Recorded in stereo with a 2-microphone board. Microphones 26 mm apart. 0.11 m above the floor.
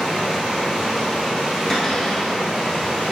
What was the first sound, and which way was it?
Running water, 55° right (ahead or behind).